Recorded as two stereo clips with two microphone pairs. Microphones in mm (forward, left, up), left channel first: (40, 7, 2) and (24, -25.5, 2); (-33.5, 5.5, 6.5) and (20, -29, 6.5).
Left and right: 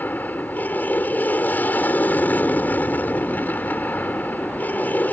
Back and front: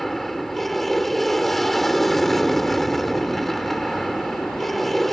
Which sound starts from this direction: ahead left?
An aircraft, at 0.0 s.